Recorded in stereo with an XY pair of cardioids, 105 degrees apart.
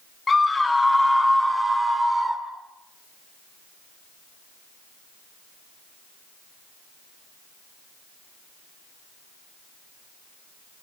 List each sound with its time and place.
0.3 s a scream: 30° left, 1.6 m; by 2.4 s 15° right, 3 m